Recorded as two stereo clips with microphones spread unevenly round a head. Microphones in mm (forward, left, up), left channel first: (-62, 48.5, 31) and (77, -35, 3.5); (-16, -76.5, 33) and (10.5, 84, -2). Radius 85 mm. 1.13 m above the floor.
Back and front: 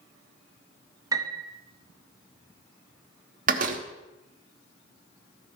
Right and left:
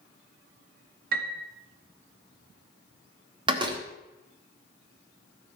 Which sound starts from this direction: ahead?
A door slam, at 3.5 s.